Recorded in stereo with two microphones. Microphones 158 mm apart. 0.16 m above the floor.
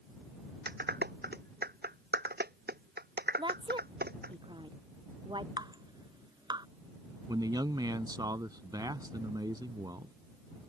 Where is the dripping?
25° right (ahead or behind).